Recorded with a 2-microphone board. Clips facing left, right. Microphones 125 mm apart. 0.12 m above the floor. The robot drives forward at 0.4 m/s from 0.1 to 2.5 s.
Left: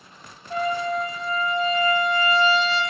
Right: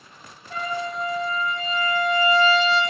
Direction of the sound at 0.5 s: 15° left (ahead or behind).